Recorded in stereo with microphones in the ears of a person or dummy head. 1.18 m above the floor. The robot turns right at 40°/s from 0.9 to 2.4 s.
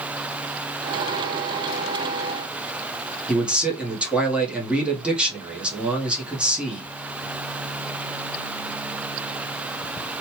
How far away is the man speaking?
About 0.8 m.